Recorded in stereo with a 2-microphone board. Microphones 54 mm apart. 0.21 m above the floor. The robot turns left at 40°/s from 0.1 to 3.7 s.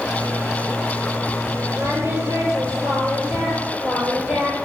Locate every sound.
1.8 s singing: 50° right, 5.5 m; by 4.6 s 125° right, 5.5 m